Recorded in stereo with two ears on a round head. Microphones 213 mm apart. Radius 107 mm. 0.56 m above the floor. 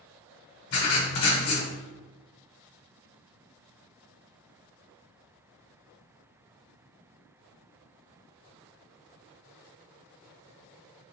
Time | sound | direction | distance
0.7 | writing | 65° left (ahead or behind) | 0.9 m